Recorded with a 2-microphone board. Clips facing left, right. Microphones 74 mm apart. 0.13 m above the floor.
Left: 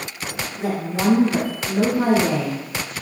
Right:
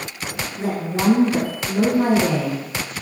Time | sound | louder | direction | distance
0.6 | a woman speaking | even | 30° right (ahead or behind) | 1.3 m